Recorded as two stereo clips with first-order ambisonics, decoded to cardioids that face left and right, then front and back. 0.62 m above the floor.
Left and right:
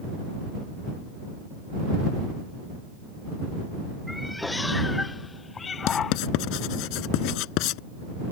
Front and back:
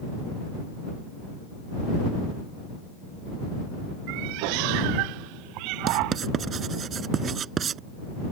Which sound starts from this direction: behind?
A cat meowing, at 4.1 s.